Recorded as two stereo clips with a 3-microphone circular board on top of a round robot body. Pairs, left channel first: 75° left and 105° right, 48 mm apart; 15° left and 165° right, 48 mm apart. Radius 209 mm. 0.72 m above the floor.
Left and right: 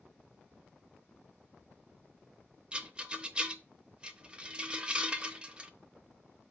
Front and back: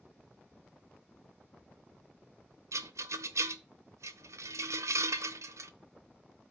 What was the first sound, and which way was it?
A rattle, 175° right.